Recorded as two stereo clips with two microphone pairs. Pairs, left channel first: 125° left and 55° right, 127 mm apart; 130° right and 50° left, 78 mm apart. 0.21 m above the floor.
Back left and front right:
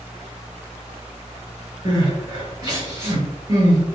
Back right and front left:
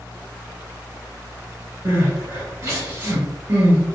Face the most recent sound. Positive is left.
turn(degrees=-5)